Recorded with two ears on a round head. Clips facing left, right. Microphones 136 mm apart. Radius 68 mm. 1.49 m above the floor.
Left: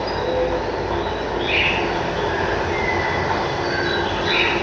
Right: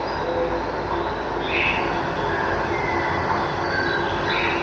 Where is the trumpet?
I don't hear a trumpet.